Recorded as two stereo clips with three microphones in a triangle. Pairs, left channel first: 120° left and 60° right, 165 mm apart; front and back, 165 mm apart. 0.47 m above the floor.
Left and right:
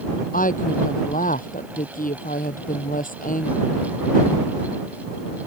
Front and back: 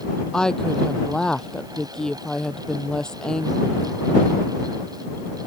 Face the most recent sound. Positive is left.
turn(degrees=85)